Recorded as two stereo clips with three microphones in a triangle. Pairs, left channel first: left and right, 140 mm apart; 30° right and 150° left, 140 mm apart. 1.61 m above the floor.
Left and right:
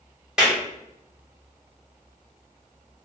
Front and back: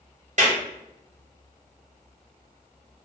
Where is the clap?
175° right, 1.3 m.